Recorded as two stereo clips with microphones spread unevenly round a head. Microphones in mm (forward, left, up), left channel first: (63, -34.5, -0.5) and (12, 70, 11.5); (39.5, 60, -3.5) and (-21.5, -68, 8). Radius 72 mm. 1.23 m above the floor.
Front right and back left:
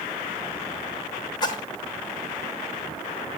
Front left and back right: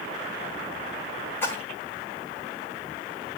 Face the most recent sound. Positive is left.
turn(degrees=-10)